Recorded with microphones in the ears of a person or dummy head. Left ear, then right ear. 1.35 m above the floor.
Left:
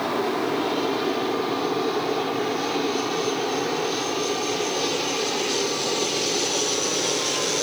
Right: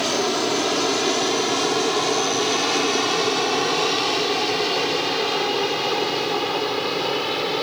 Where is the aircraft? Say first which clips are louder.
Right 3 dB; 55° right (ahead or behind).